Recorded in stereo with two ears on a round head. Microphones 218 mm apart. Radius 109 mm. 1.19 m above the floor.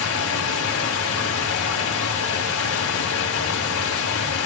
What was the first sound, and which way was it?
Running water, 65° left (ahead or behind).